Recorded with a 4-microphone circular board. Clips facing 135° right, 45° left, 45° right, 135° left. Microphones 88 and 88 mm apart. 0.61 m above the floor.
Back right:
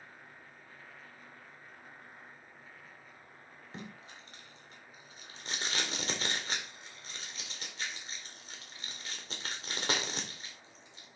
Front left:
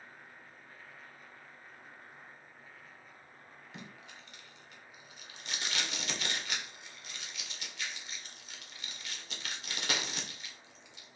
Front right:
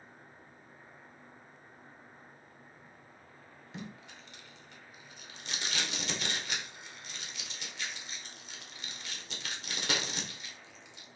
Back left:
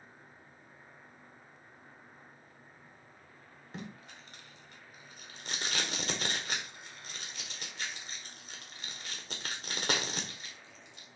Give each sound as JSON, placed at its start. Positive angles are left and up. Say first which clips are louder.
{"t": 3.7, "sound": "tape being pulled", "louder": "back right 3 dB, even", "azimuth_deg": 175, "distance_m": 1.8}